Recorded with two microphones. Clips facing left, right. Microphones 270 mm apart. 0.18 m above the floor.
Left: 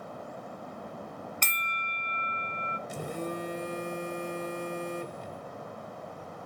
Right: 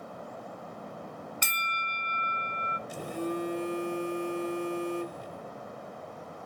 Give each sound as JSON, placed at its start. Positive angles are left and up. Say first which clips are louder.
{"t": 1.4, "sound": "a bell", "louder": "even", "side_deg": -10, "distance_m": 0.5}
{"t": 2.9, "sound": "a phone buzzing", "louder": "right 3 dB", "side_deg": 25, "distance_m": 2.0}